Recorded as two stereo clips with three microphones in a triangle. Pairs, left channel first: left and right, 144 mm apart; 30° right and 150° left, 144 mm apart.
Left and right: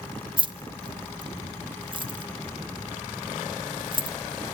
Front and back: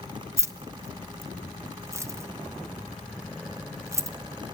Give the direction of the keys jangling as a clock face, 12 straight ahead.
5 o'clock.